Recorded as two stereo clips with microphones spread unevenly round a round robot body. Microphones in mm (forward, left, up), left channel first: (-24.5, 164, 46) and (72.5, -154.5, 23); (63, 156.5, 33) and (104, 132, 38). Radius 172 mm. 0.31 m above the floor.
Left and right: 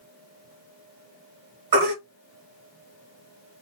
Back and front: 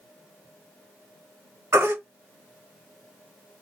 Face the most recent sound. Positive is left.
turn(degrees=-55)